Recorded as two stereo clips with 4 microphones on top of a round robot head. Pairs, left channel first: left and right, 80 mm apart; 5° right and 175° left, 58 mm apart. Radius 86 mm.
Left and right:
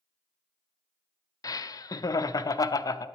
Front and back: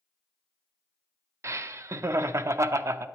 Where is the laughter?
135° left, 0.6 m.